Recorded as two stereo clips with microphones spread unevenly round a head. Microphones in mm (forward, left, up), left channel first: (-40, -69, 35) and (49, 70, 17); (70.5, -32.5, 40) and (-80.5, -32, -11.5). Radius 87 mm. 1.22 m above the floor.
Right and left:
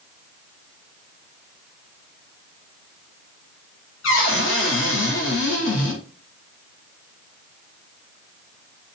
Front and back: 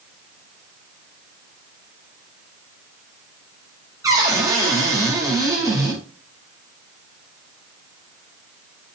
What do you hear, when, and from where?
4.0 s a cupboard door: 115° right, 4.5 m